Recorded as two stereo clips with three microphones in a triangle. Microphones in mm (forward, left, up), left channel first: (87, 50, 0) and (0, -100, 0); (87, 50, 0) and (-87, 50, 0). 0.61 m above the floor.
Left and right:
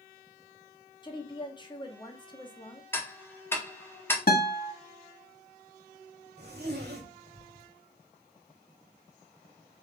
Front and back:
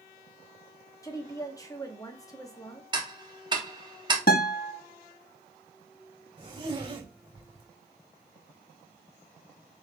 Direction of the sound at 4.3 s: 30° left.